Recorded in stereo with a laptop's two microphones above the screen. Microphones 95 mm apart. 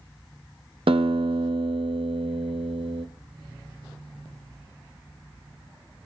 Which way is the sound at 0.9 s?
70° right (ahead or behind).